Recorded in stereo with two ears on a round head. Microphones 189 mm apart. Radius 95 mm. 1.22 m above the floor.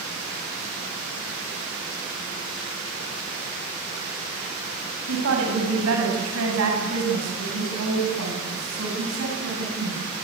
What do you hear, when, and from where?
5.1 s a woman speaking: 75° right (ahead or behind), 8 m; by 10.0 s 70° right (ahead or behind), 11 m